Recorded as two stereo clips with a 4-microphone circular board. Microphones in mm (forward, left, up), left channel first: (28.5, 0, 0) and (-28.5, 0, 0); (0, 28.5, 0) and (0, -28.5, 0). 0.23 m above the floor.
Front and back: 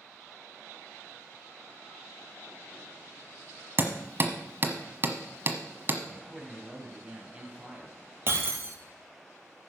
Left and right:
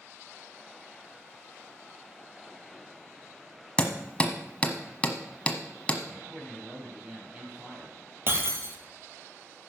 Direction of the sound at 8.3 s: 135° right.